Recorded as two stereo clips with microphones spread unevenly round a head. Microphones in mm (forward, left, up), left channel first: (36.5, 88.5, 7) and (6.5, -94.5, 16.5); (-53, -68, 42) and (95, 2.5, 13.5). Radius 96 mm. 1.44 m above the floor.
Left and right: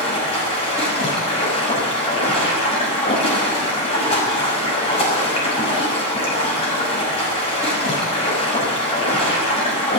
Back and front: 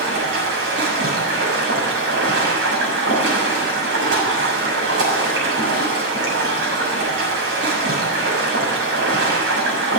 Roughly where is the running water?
Ahead.